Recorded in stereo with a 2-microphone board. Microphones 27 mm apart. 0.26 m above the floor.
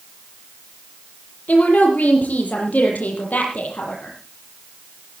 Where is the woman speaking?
70° left (ahead or behind), 7 m.